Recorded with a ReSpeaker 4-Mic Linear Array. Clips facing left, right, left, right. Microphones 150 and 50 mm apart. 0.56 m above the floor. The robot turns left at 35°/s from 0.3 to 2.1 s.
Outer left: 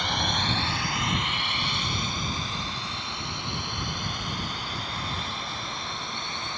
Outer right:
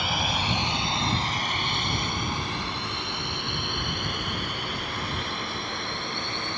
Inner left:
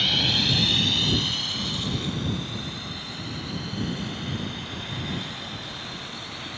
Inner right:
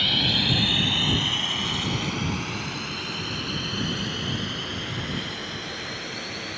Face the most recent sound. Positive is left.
turn(degrees=-65)  # may be behind; listen again after turning